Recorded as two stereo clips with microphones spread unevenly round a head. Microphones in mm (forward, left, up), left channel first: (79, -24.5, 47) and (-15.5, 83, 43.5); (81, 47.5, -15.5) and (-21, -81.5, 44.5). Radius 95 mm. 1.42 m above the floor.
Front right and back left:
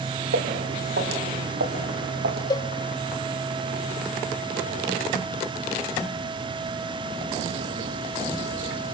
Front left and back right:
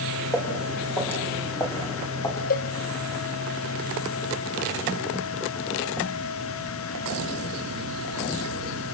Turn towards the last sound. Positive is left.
turn(degrees=10)